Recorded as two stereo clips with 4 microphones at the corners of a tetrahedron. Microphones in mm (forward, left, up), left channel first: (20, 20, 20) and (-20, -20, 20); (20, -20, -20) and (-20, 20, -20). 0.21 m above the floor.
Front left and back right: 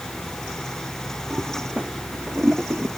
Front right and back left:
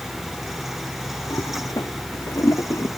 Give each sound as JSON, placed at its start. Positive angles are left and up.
{"t": 1.3, "sound": "a toilet flushing", "azimuth_deg": -65}